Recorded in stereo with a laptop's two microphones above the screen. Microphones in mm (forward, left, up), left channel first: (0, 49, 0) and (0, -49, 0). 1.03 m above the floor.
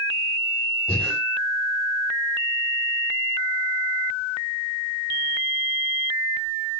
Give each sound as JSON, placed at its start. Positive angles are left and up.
{"t": 0.9, "sound": "breathing", "side_deg": 10, "distance_m": 4.5}